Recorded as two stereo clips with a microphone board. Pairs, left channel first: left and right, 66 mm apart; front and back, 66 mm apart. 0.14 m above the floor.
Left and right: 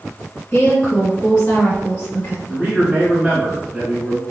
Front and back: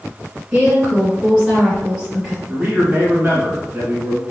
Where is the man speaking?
155° right, 1.2 m.